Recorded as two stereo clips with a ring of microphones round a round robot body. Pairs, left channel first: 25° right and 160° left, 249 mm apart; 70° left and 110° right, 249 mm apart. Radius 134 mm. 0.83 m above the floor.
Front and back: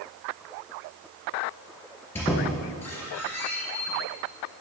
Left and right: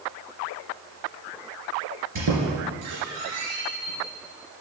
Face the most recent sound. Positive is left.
turn(degrees=-105)